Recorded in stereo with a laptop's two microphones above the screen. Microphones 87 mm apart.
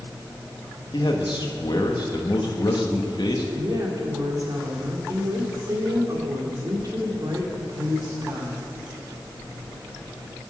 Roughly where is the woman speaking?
Right.